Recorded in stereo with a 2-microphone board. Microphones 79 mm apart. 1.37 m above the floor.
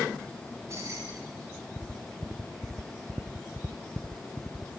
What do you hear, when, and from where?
0.4 s keys jangling: 40° right (ahead or behind), 9.5 m